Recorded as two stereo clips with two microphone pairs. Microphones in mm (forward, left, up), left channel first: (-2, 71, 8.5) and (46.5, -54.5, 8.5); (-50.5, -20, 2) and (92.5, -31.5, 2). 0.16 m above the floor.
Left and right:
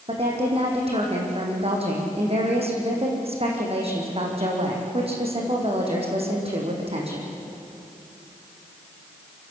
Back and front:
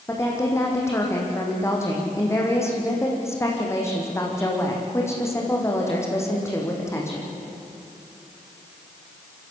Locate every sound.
0.1 s a woman speaking: 115° right, 7 m